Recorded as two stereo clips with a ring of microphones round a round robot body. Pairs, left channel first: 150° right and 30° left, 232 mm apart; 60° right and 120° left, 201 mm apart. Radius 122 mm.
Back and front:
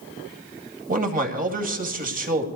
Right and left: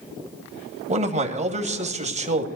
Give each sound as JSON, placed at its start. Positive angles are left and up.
{"t": 0.9, "sound": "a man speaking", "azimuth_deg": 75, "distance_m": 2.0}